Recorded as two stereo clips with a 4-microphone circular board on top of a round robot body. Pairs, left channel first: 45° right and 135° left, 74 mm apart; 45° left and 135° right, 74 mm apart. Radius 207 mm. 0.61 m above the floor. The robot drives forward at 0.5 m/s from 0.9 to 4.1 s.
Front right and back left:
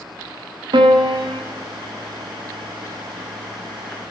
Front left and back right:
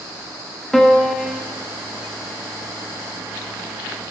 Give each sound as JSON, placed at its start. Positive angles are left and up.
{"t": 0.7, "sound": "a piano", "azimuth_deg": 130, "distance_m": 0.8}